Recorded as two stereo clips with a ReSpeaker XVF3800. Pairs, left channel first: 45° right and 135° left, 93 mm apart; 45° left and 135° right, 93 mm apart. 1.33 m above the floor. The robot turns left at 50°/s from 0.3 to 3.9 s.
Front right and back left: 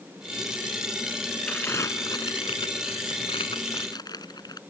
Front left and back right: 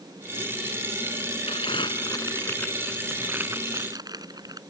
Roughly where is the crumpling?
Ahead left.